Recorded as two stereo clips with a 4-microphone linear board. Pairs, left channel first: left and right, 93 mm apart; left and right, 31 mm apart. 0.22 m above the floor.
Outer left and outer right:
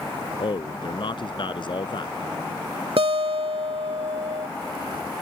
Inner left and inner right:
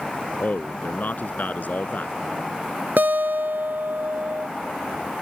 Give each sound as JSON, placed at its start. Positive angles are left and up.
{"t": 0.4, "sound": "a man speaking", "side_deg": 60}
{"t": 3.0, "sound": "a guitar", "side_deg": -80}